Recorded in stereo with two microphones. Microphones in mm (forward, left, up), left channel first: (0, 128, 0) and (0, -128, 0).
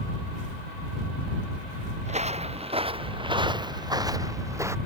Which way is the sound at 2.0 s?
25° right (ahead or behind).